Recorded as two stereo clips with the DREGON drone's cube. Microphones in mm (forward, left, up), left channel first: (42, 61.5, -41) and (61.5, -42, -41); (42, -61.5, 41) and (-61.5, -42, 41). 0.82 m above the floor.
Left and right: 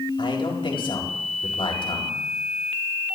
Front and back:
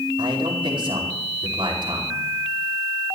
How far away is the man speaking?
About 5 m.